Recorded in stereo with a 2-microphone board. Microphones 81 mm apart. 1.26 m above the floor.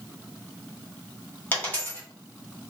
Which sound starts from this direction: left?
A dropped coin, at 1.5 s.